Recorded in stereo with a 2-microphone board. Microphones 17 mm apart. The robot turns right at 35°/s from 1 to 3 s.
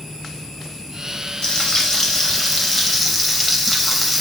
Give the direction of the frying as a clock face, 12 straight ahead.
8 o'clock.